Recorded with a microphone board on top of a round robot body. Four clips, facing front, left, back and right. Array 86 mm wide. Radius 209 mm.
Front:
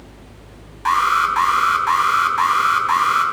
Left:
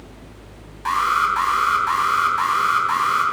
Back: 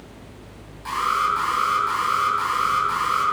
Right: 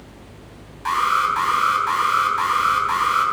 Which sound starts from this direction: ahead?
An alarm, at 0.8 s.